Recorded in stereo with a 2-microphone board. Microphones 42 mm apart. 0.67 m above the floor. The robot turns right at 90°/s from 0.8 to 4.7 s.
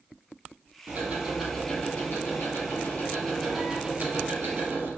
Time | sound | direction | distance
0.9 | ticking | 55° right | 4.5 m